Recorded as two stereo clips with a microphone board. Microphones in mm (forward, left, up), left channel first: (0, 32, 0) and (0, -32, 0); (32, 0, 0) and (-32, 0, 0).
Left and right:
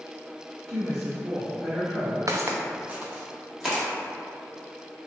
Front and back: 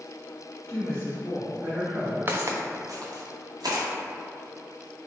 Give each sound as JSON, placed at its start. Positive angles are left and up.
{"t": 0.7, "sound": "a woman speaking", "azimuth_deg": -155, "distance_m": 1.8}
{"t": 2.3, "sound": "footsteps", "azimuth_deg": -125, "distance_m": 0.6}